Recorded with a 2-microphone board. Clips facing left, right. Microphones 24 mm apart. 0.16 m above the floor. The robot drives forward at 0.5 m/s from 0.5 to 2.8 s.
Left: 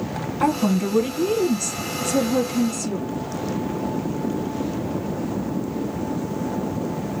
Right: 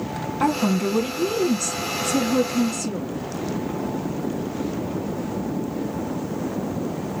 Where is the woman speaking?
5° right (ahead or behind), 1.0 m.